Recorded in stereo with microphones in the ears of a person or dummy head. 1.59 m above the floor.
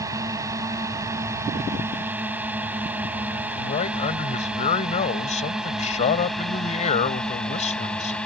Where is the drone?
15° right (ahead or behind); by 8.3 s 5° left (ahead or behind).